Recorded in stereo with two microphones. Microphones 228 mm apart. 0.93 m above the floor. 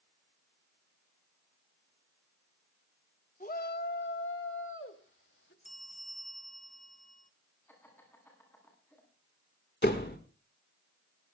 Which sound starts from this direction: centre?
Laughter, at 7.7 s.